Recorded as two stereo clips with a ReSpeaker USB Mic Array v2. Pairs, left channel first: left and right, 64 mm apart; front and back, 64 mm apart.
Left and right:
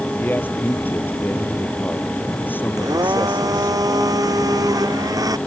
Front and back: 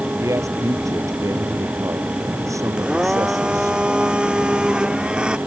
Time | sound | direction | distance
0.2 | a man speaking | 150° left | ?
2.8 | a blender | 105° right | ?